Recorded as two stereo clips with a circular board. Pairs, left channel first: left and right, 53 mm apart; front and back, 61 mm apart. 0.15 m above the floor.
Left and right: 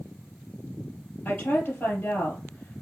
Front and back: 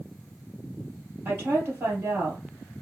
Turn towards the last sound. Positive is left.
turn(degrees=135)